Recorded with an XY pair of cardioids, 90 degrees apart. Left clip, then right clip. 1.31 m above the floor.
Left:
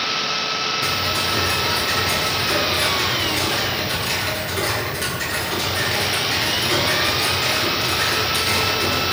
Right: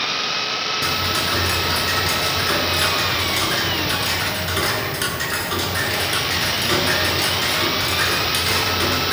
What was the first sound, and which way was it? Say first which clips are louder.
Ticking: even; 50° right.